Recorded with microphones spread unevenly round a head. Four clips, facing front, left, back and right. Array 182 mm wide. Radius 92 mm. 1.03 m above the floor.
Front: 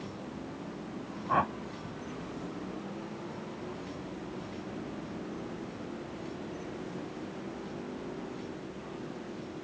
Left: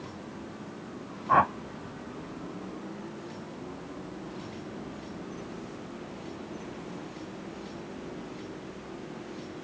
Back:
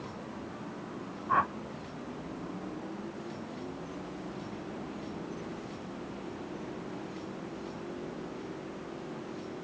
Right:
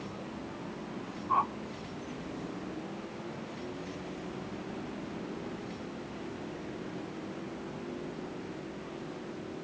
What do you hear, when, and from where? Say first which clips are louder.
1.3 s a whoosh: left 7 dB, even; 75° left